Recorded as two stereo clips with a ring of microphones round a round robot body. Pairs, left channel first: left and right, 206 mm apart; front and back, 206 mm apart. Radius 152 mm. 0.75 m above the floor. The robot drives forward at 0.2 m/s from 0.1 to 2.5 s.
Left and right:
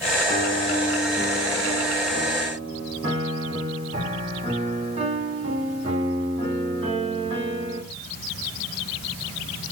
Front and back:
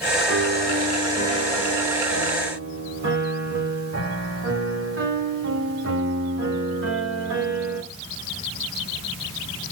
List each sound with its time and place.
0.3 s a piano: 150° right, 2 m; by 7.8 s 155° right, 2.5 m